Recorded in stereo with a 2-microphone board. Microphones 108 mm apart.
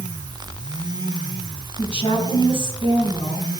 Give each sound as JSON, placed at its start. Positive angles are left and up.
{"t": 1.8, "sound": "a woman speaking", "side_deg": 55, "distance_m": 4.5}